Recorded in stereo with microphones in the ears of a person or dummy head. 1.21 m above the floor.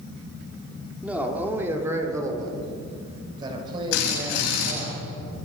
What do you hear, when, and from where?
1.0 s a man speaking: 5° right (ahead or behind), 2.5 m; by 4.9 s 35° right (ahead or behind), 6 m
3.9 s a drill: 80° left, 9 m